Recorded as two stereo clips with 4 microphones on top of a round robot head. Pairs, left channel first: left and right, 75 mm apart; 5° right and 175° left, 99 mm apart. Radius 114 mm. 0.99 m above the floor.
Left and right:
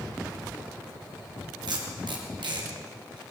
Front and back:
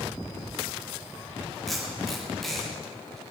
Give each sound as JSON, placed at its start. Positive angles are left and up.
{"t": 1.7, "sound": "tape being pulled", "azimuth_deg": -90, "distance_m": 3.0}